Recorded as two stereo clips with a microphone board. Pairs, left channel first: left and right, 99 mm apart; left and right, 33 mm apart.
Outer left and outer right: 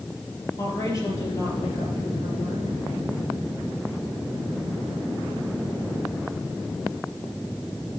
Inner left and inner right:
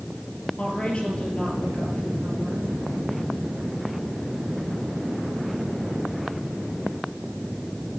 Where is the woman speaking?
30° left (ahead or behind), 4 m.